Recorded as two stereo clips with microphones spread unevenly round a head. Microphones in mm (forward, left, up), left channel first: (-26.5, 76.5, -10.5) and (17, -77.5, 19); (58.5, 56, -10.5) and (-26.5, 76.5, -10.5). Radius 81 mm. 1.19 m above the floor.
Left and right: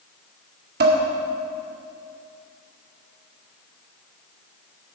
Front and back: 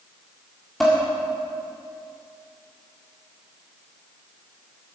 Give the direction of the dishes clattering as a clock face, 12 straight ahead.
3 o'clock.